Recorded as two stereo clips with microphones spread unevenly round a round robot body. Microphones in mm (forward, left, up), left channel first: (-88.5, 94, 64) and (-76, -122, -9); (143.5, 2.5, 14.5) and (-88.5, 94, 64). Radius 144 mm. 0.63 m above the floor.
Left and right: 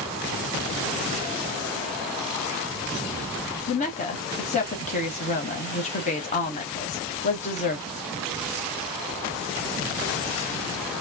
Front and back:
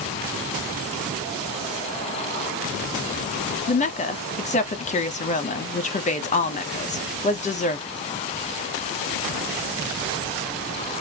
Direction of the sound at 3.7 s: 20° left.